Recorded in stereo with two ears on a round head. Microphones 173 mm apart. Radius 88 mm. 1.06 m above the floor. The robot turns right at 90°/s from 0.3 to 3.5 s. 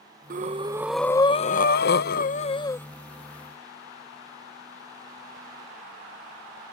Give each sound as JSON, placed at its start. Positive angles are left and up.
{"t": 0.3, "sound": "breathing", "azimuth_deg": -60}